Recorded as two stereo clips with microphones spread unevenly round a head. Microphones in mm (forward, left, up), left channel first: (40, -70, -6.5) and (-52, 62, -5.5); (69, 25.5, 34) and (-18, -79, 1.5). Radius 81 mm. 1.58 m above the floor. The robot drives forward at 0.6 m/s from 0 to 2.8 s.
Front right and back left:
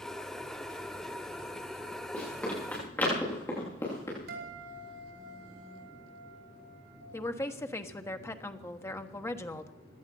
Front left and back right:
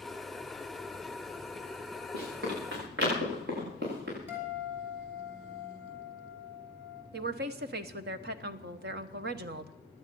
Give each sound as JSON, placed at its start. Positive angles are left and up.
{"t": 2.1, "sound": "running footsteps", "azimuth_deg": -135, "distance_m": 9.0}
{"t": 4.3, "sound": "a guitar", "azimuth_deg": 150, "distance_m": 5.5}
{"t": 7.1, "sound": "a woman speaking", "azimuth_deg": -130, "distance_m": 1.2}